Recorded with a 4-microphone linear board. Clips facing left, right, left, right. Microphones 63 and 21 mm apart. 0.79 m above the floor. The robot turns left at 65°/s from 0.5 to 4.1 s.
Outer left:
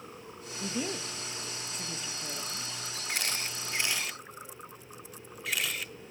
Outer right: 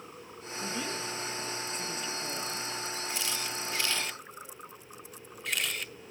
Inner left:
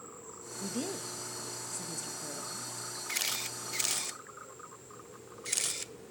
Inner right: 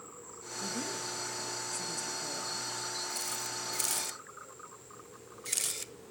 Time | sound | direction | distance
0.6 | a woman speaking | 20° left (ahead or behind) | 1.0 m
3.1 | a camera shutter | 70° left (ahead or behind) | 0.7 m